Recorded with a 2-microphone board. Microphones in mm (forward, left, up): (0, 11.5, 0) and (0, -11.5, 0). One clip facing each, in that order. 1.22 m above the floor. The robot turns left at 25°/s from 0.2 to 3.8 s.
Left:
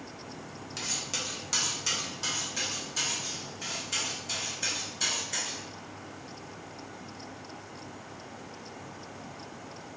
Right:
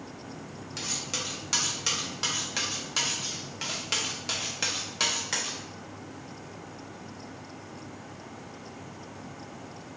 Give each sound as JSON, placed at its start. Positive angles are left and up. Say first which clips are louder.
{"t": 0.8, "sound": "cutlery clinking", "louder": "right 1 dB", "azimuth_deg": 0, "distance_m": 0.5}